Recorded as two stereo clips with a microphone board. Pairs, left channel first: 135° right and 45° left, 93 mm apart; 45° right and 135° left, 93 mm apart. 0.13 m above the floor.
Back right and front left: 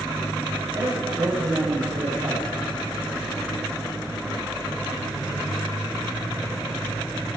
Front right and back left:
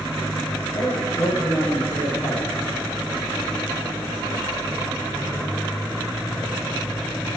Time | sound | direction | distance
0.7 | a man speaking | 10° left | 4.5 m